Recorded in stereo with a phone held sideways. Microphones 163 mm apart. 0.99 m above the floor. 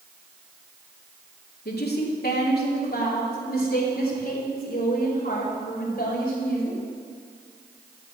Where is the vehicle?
I don't hear a vehicle.